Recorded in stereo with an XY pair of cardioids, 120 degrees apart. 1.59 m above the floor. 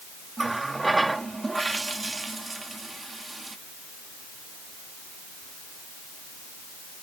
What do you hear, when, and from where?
0.4 s a running tap: 15° right